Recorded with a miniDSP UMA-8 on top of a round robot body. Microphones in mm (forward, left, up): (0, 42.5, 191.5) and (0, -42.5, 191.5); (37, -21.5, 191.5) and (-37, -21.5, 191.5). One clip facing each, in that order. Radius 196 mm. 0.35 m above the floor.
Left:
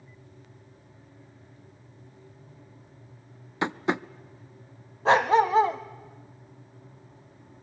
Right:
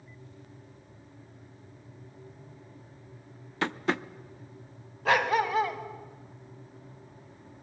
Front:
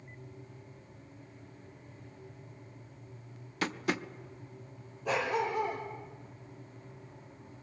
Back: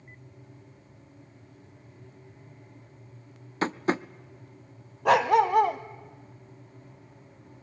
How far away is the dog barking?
About 1.0 m.